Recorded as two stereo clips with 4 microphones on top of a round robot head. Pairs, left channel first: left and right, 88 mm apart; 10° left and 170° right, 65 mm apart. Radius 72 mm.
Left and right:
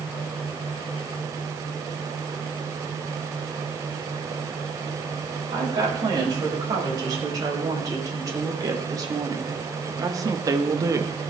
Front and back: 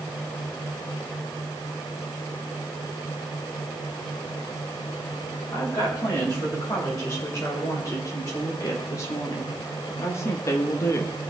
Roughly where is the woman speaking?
Ahead right.